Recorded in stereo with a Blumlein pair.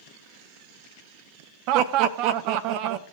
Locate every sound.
1.7 s laughter: 40° right, 0.5 m